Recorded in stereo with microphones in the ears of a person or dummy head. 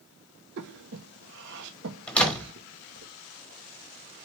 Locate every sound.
0.6 s breathing: 60° right (ahead or behind), 1.3 m
2.1 s a door slam: 10° left (ahead or behind), 1.3 m